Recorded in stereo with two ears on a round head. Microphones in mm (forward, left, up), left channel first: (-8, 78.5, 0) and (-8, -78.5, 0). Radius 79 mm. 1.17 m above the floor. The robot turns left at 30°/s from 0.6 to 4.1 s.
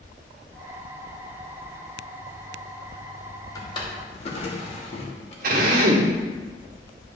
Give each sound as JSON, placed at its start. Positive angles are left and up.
{"t": 3.5, "sound": "a drawer", "side_deg": 20, "distance_m": 1.3}
{"t": 5.4, "sound": "a drill", "side_deg": -60, "distance_m": 1.3}